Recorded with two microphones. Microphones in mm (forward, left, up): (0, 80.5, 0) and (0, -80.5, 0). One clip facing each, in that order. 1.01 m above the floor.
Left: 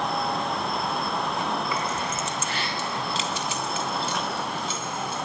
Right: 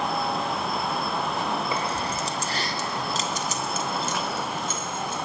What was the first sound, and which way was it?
Keys jangling, 25° right (ahead or behind).